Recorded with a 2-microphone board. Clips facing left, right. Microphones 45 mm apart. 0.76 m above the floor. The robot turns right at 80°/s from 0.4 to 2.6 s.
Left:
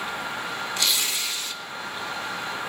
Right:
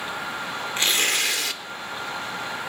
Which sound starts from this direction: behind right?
Tearing paper, at 0.8 s.